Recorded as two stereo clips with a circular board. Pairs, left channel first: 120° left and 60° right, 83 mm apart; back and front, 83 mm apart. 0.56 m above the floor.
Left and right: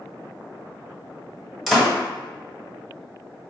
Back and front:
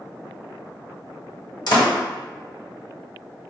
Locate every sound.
1.7 s a door slam: 145° right, 1.1 m